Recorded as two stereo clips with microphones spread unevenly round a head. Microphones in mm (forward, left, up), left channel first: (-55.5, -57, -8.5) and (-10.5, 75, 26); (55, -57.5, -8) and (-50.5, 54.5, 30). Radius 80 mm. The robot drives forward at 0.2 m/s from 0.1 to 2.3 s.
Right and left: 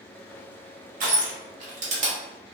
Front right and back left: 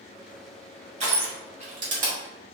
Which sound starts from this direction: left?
Crushing, at 1.0 s.